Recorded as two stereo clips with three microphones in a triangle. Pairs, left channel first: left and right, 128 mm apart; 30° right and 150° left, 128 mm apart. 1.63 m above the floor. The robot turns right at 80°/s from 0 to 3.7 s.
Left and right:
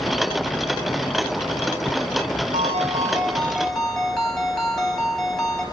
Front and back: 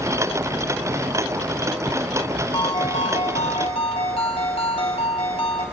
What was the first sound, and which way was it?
A ringtone, 90° right.